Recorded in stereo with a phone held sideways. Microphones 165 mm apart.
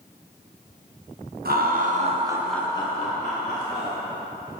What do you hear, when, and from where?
1.4 s laughter: 70° right (ahead or behind), 1.3 m; by 4.0 s 65° left (ahead or behind), 1.9 m